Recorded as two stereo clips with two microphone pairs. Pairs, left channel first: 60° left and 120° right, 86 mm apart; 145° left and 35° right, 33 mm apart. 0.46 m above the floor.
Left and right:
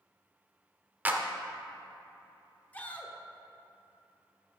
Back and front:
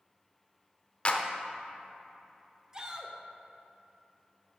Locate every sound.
1.1 s a clap: 175° right, 0.7 m
2.7 s a shout: 5° left, 1.0 m